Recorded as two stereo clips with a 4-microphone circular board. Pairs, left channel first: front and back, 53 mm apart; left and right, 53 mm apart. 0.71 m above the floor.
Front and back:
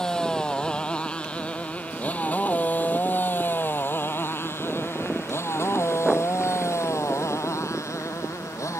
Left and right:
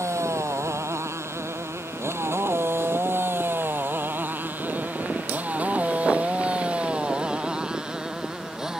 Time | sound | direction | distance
0.0 | a motorcycle | 75° right | ?